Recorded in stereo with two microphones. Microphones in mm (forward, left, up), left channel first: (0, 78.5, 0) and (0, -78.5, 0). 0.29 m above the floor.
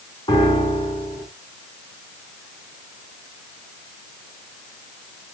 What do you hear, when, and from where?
0.3 s a piano: 35° left (ahead or behind), 3.5 m